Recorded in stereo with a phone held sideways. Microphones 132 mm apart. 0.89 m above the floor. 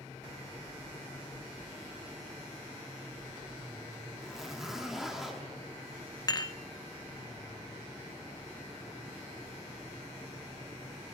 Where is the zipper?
5° right (ahead or behind), 1.8 m.